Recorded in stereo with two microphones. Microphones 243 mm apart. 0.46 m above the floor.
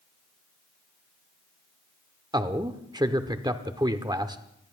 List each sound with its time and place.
2.3 s a man speaking: 15° right (ahead or behind), 0.9 m